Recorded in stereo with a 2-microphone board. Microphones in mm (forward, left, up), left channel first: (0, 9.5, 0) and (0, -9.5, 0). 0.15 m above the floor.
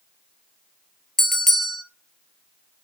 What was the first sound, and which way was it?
A bell, 20° left (ahead or behind).